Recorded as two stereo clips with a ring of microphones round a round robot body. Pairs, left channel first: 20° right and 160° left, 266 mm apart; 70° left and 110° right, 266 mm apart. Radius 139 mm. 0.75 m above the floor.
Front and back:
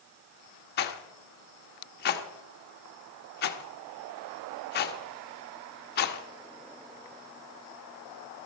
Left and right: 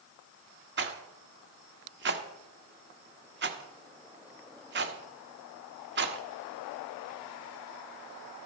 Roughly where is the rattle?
Right.